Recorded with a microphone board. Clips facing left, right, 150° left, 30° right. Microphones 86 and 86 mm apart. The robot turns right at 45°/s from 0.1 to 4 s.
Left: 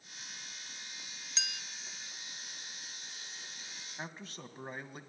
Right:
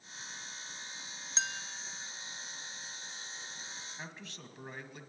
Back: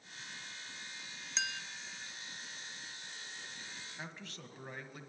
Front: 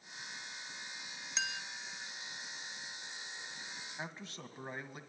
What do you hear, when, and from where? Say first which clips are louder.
1.4 s a clink: right 5 dB, even; 115° right, 0.8 m; by 1.6 s 105° right, 0.8 m
4.0 s a man speaking: left 7 dB, front 4 dB; 40° left, 1.9 m